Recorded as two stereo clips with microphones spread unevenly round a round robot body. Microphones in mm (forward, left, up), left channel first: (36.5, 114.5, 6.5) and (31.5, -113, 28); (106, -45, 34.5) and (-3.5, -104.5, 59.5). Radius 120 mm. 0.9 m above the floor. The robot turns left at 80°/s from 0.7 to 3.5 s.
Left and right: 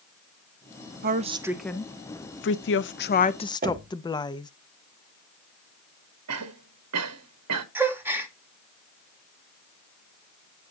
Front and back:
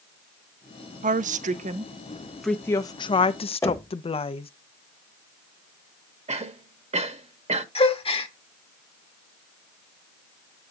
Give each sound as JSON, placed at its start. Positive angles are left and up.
{"t": 1.0, "sound": "a woman speaking", "azimuth_deg": -140, "distance_m": 0.7}
{"t": 3.6, "sound": "knocking", "azimuth_deg": -35, "distance_m": 1.1}
{"t": 6.3, "sound": "a cough", "azimuth_deg": -115, "distance_m": 1.4}
{"t": 7.8, "sound": "a gasp", "azimuth_deg": -10, "distance_m": 1.3}